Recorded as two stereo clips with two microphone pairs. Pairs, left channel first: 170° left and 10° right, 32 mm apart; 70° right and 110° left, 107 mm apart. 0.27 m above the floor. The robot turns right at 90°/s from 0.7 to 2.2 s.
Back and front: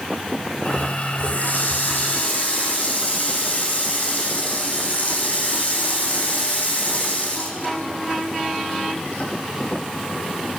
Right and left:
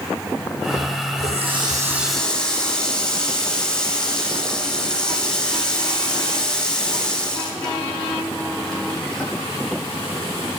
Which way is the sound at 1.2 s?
115° left.